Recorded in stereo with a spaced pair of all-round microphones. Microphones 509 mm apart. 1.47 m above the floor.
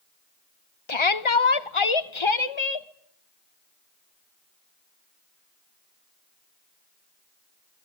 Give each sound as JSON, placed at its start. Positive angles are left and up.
{"t": 0.9, "sound": "a shout", "side_deg": 60, "distance_m": 1.0}